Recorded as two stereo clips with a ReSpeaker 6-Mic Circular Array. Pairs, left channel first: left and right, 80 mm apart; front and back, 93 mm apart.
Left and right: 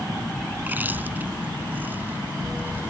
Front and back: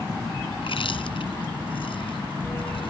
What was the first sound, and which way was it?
Chewing, 25° right.